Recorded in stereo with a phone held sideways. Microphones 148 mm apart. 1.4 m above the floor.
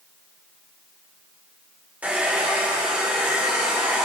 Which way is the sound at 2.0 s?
10° right (ahead or behind).